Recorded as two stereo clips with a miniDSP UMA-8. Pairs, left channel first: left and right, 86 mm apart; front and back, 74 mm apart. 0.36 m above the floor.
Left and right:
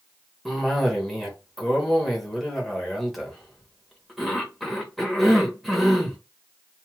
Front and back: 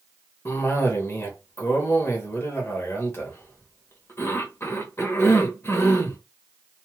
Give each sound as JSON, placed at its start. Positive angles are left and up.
{"t": 0.5, "sound": "a cough", "azimuth_deg": 0, "distance_m": 1.2}